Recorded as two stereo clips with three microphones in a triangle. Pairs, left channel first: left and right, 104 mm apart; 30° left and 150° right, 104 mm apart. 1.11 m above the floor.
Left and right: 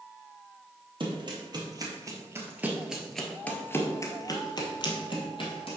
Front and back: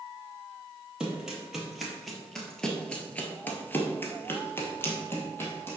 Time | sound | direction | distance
1.0 | running footsteps | 65° right | 1.8 m